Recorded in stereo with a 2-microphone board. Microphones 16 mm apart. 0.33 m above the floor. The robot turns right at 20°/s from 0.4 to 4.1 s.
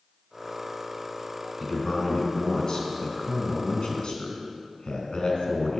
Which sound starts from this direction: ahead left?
A man speaking, at 1.6 s.